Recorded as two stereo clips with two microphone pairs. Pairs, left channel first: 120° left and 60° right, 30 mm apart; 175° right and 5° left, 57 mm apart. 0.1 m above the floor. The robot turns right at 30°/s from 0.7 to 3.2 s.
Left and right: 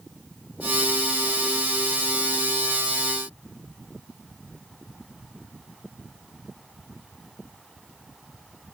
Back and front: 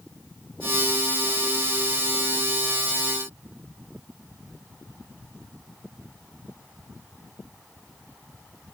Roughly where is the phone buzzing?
No phone buzzing in this recording.